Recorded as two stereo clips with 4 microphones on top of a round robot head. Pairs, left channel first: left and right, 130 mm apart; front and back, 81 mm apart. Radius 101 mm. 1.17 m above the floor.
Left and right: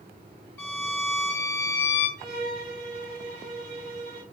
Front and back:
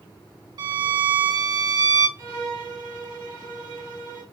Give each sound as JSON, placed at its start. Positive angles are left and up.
{"t": 0.6, "sound": "a violin", "azimuth_deg": 165, "distance_m": 0.8}
{"t": 2.2, "sound": "a violin", "azimuth_deg": -45, "distance_m": 2.5}